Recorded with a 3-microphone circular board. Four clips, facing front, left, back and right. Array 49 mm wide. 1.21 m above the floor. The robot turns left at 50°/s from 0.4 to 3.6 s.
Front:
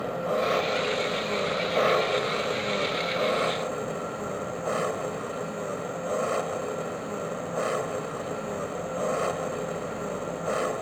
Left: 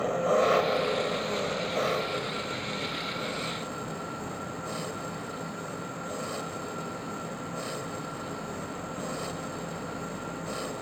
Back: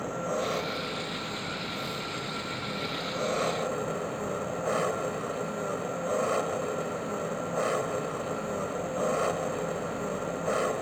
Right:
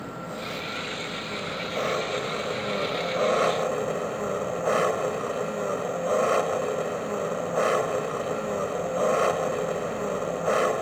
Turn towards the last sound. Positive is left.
turn(degrees=-90)